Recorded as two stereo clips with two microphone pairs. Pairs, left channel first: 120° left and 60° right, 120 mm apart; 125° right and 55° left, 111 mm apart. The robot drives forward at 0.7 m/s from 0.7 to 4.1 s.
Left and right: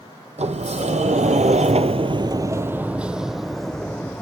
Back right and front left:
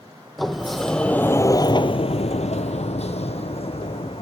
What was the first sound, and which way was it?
A sliding door, 40° right.